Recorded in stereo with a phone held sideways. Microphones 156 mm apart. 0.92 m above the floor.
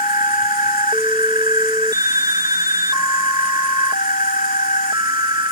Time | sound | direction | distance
0.0 | an insect | 65° left (ahead or behind) | ?